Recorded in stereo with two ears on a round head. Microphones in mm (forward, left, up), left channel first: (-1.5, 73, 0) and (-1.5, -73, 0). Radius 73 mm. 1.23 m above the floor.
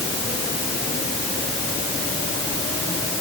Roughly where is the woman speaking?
No woman speaking in this recording.